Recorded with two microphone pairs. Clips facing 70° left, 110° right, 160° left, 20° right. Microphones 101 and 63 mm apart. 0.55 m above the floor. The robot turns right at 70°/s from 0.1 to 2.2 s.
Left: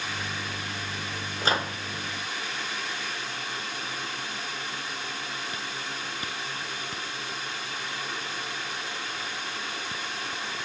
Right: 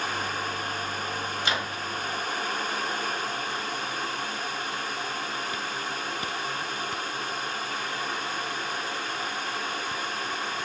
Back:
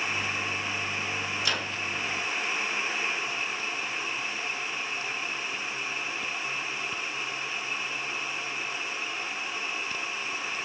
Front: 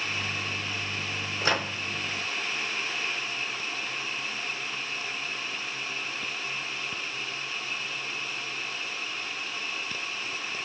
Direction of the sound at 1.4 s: 25° left.